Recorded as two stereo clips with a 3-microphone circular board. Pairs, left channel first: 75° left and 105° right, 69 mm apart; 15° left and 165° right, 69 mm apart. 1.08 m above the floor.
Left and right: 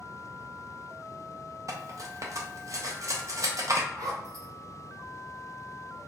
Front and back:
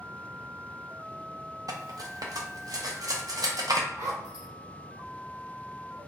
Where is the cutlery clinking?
140° right, 0.6 m.